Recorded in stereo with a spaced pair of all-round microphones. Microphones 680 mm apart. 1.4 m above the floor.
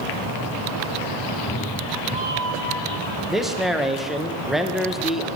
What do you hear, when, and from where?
1.2 s a cat meowing: 35° left (ahead or behind), 0.8 m; by 3.2 s 30° right (ahead or behind), 1.6 m
3.3 s a man speaking: centre (ahead or behind), 0.9 m